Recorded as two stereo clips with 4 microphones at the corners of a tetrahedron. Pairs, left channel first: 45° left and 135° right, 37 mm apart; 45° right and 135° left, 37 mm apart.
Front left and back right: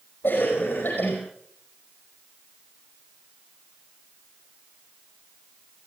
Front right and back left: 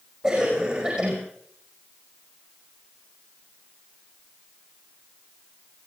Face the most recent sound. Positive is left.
turn(degrees=75)